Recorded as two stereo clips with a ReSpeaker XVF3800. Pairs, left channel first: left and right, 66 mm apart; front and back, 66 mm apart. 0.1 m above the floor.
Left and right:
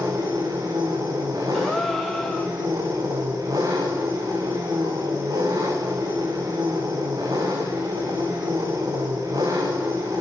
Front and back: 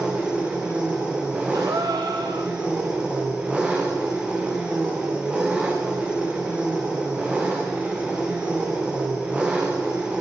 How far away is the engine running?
About 6.5 m.